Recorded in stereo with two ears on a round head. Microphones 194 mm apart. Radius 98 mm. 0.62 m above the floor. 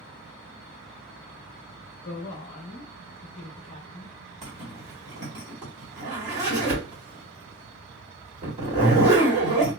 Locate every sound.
2.0 s a woman speaking: 35° left (ahead or behind), 0.6 m
4.4 s a zipper: 35° right (ahead or behind), 1.7 m